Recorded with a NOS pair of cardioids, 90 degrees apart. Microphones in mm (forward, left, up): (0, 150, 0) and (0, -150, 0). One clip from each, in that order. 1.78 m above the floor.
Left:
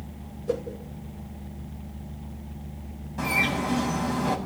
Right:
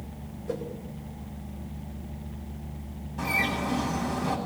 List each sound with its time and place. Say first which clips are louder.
0.5 s a whoosh: left 5 dB; 40° left, 9 m
3.2 s a bird: left 2 dB; 35° left, 9 m